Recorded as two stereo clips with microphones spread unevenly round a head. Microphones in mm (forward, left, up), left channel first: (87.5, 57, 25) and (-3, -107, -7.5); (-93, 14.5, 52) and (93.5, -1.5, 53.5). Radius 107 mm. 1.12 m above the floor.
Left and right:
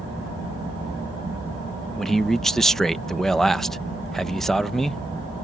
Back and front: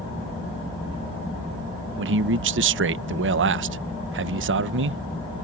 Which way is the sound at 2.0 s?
30° right.